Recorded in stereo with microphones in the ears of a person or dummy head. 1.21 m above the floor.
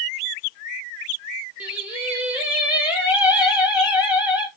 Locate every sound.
1.6 s singing: centre (ahead or behind), 0.9 m